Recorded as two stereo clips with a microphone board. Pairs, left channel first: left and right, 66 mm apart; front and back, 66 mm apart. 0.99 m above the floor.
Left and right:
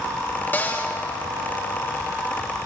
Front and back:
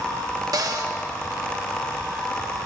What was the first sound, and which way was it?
A cupboard door, 155° left.